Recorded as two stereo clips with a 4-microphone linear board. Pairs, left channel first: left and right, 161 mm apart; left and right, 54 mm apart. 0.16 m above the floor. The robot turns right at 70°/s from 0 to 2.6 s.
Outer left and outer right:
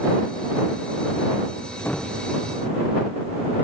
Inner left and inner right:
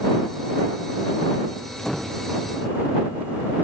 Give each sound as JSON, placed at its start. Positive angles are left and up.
{"t": 1.8, "sound": "a door slam", "side_deg": 15}